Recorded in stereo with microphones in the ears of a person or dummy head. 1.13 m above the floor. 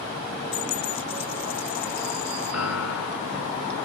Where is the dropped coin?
35° left (ahead or behind).